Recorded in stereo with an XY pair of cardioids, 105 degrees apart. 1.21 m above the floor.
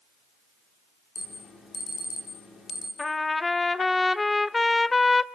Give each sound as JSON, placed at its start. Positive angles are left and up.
{"t": 1.1, "sound": "an alarm", "azimuth_deg": 45, "distance_m": 5.0}
{"t": 3.0, "sound": "a trumpet", "azimuth_deg": 20, "distance_m": 0.7}